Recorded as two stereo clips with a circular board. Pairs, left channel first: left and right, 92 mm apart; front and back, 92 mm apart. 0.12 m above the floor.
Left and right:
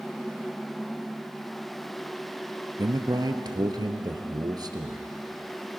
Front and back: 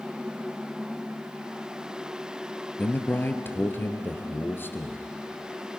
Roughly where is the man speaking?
Ahead right.